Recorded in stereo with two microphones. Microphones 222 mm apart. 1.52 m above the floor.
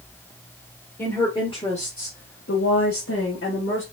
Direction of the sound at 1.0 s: 10° left (ahead or behind).